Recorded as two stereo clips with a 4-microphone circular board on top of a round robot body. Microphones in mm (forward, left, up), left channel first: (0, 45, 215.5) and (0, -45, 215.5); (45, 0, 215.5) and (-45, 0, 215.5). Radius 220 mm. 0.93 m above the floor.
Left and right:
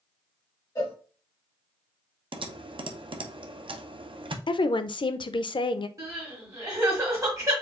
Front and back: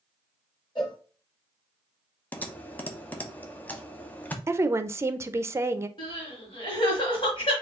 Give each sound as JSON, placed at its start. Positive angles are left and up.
{"t": 0.8, "sound": "a cowbell", "azimuth_deg": 40, "distance_m": 1.5}
{"t": 2.3, "sound": "typing on a keyboard", "azimuth_deg": -75, "distance_m": 0.8}
{"t": 4.5, "sound": "a woman speaking", "azimuth_deg": 120, "distance_m": 0.5}
{"t": 6.0, "sound": "crying", "azimuth_deg": -35, "distance_m": 1.4}